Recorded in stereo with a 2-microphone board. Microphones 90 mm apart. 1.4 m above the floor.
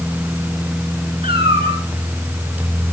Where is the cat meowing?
80° right, 6.5 m.